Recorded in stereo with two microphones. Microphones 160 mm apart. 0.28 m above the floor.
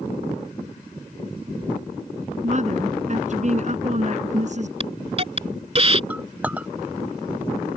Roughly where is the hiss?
Right.